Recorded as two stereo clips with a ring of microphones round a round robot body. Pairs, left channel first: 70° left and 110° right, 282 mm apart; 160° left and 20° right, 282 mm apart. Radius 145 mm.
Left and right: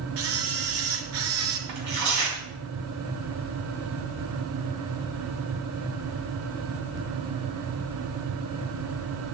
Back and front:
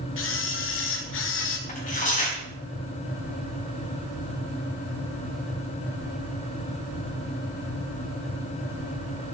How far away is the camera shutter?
About 1.8 m.